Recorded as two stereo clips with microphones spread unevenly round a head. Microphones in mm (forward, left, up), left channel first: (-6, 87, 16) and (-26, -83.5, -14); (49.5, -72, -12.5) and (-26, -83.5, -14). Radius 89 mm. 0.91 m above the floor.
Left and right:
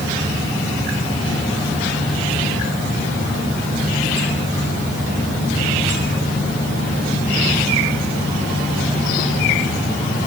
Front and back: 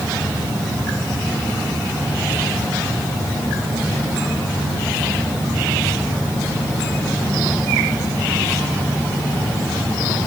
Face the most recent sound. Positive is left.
No sound to turn to.